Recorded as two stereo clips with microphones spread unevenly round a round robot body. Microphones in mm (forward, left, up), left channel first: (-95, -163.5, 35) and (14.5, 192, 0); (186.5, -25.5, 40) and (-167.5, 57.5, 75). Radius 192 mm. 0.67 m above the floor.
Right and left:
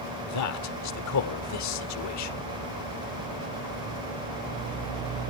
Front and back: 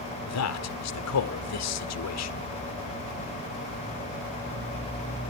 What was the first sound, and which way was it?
A man speaking, 55° right.